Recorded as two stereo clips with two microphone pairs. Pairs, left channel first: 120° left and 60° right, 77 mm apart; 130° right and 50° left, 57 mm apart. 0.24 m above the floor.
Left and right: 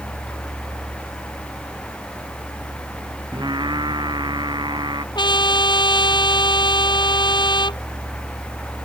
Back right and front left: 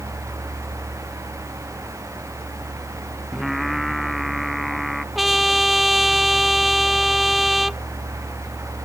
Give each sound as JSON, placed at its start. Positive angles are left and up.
{"t": 3.3, "sound": "singing", "azimuth_deg": -40}
{"t": 5.2, "sound": "a trumpet", "azimuth_deg": 135}